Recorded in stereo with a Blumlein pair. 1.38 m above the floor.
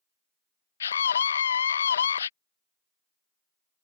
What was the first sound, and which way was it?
A scream, 70° left.